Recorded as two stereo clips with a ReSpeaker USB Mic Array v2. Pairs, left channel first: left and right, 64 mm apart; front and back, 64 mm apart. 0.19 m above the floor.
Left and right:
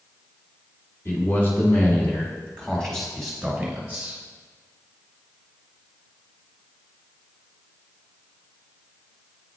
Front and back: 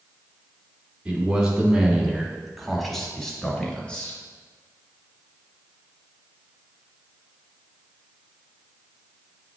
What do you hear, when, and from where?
1.1 s a man speaking: 115° left, 1.7 m; by 4.2 s 40° right, 1.4 m